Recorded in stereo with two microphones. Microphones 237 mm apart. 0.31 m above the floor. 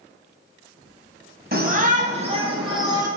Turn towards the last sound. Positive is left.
turn(degrees=-15)  # may be behind; listen again after turning